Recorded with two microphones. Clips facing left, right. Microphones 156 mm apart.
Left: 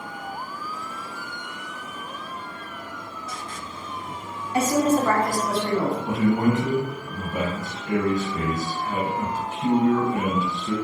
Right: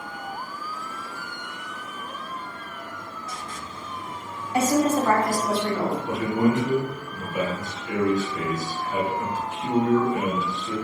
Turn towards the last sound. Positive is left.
turn(degrees=35)  # may be behind; listen again after turning